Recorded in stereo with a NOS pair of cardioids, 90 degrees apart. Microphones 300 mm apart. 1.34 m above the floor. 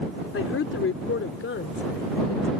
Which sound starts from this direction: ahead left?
A woman speaking, at 0.3 s.